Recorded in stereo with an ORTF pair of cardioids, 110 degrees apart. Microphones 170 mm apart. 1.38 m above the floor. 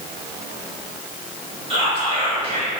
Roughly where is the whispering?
Ahead right.